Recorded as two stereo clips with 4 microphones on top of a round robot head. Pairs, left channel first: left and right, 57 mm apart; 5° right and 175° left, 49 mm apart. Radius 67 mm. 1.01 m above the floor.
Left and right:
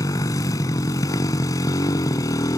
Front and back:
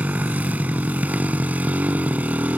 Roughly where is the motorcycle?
Behind left.